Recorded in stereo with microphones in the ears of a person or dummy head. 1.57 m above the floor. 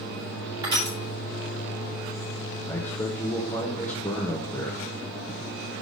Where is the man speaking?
10° left (ahead or behind), 0.9 m.